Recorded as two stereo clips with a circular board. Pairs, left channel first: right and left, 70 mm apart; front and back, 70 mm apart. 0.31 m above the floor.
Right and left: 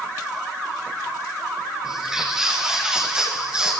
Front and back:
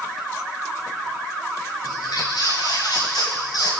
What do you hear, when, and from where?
1.8 s footsteps: 10° left, 8 m; by 3.7 s 15° left, 8.5 m